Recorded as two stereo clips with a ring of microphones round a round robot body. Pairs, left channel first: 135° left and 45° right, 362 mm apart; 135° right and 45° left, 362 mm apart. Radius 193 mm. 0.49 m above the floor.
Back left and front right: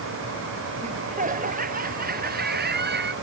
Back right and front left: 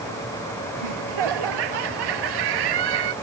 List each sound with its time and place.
0.8 s laughter: 25° left; by 3.1 s 20° left